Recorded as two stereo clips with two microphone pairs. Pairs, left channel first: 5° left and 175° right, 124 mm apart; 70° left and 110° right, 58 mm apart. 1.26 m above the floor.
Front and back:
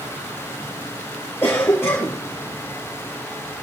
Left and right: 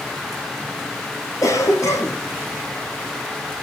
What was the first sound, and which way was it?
A cough, 75° left.